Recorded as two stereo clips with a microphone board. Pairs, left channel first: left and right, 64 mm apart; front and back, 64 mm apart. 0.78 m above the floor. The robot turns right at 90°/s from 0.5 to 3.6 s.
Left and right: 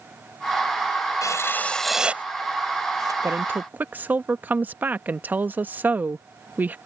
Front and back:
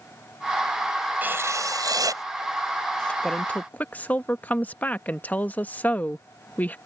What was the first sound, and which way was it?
Writing, 115° left.